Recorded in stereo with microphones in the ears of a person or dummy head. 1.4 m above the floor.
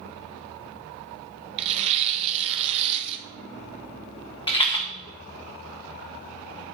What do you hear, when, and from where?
1.6 s tearing paper: 35° right (ahead or behind), 0.8 m
4.5 s a rattle: 30° left (ahead or behind), 0.9 m